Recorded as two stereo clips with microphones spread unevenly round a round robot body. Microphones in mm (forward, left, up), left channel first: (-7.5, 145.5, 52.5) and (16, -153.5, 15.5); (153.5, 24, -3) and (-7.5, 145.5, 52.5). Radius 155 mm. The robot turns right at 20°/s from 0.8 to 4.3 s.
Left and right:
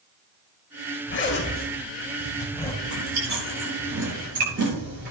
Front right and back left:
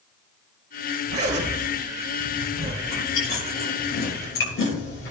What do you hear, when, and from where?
1.1 s a zipper: 145° left, 2.5 m; by 2.7 s straight behind, 2.5 m
2.8 s chewing: 60° right, 8 m; by 5.1 s 30° right, 8 m